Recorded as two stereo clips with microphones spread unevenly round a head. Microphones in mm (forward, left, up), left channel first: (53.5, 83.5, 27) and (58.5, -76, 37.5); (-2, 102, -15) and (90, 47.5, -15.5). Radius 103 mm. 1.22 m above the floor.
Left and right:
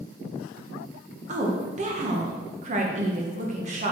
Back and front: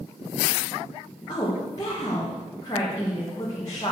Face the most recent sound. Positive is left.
turn(degrees=-140)